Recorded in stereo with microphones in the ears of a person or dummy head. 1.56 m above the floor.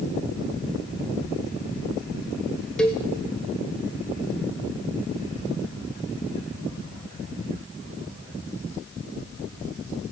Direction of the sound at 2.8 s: Centre (ahead or behind).